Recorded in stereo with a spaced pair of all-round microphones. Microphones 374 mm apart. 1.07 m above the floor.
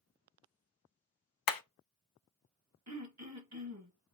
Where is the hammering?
70° left (ahead or behind), 0.5 m.